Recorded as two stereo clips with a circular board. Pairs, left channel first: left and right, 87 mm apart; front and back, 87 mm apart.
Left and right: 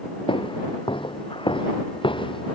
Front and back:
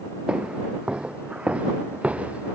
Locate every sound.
0.3 s footsteps: 100° left; by 2.5 s 105° left